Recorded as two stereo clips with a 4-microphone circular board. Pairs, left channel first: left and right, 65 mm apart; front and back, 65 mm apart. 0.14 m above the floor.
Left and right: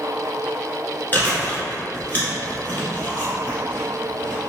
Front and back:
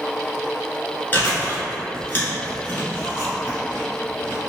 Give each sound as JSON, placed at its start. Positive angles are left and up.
{"t": 1.1, "sound": "chewing", "azimuth_deg": 45, "distance_m": 1.2}